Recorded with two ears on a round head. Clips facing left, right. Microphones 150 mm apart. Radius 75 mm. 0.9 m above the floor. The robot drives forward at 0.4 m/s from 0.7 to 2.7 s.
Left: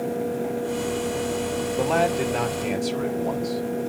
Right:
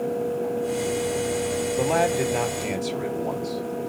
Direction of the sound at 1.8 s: 5° right (ahead or behind).